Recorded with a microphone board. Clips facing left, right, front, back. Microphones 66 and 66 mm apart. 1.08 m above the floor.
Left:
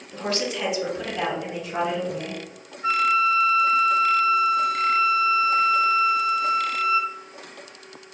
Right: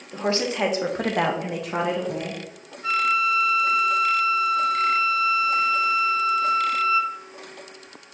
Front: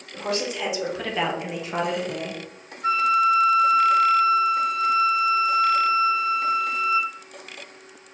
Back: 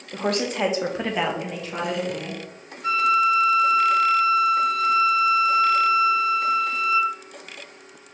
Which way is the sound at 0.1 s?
160° right.